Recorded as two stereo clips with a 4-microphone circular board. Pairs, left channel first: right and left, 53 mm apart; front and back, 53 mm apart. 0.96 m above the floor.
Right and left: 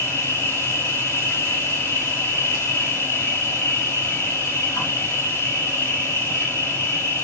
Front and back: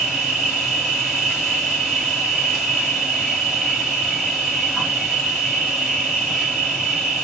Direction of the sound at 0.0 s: 90° right.